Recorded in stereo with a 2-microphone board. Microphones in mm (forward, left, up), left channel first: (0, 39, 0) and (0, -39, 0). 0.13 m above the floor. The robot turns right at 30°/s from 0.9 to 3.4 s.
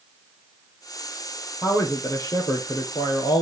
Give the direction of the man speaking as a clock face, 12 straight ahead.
11 o'clock.